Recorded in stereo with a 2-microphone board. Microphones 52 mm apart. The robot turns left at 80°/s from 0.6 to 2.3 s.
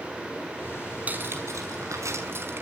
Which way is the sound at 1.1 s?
30° right.